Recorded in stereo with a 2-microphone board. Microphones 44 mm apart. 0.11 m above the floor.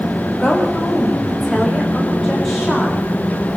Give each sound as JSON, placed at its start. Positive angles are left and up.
{"t": 0.4, "sound": "a woman speaking", "side_deg": 5, "distance_m": 7.5}